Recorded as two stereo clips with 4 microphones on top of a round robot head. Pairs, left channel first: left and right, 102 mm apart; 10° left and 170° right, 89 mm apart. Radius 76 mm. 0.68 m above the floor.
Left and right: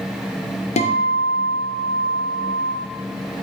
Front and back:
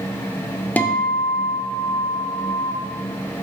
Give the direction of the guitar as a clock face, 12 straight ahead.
9 o'clock.